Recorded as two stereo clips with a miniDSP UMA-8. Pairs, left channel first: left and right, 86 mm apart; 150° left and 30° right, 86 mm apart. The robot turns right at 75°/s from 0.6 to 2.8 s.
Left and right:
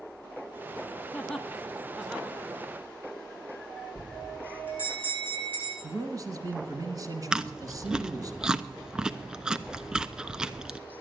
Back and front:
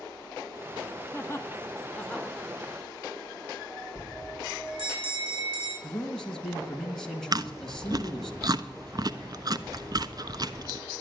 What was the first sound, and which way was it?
Laughter, 135° left.